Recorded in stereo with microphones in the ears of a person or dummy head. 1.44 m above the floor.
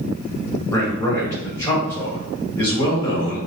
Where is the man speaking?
25° left (ahead or behind), 2 m.